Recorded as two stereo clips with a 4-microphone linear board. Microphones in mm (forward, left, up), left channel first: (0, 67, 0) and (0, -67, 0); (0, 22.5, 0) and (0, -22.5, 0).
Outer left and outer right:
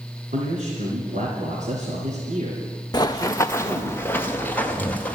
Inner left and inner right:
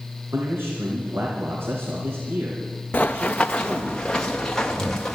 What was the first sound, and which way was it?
A man speaking, 70° right (ahead or behind).